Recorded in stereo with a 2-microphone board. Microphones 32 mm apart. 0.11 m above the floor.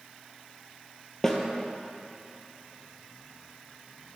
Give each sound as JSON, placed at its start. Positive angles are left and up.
{"t": 1.2, "sound": "a snare drum", "side_deg": 15, "distance_m": 0.9}